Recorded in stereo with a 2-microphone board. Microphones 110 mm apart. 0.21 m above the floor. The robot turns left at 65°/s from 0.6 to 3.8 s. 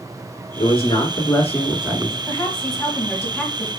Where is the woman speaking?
20° left (ahead or behind), 1.2 m; by 3.7 s 5° right (ahead or behind), 1.2 m.